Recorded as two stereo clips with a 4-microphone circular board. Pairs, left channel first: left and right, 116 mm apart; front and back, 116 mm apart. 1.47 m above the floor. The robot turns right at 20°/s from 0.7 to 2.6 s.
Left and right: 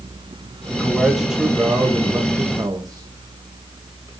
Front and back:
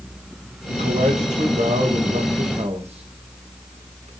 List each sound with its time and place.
0.7 s a man speaking: 170° left, 1.9 m; by 4.1 s 150° right, 1.9 m